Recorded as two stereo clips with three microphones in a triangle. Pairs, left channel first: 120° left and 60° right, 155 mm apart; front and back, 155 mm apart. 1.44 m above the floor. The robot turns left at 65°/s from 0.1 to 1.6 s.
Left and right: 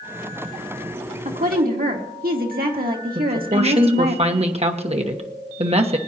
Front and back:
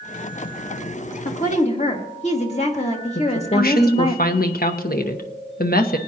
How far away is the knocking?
No knocking in this recording.